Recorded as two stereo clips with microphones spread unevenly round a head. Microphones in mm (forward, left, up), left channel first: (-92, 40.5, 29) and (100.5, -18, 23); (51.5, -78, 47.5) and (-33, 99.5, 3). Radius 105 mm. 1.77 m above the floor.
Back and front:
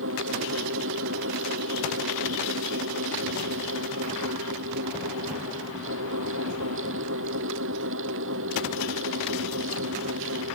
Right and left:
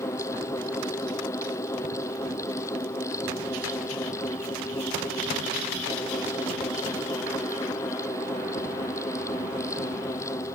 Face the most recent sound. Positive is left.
turn(degrees=10)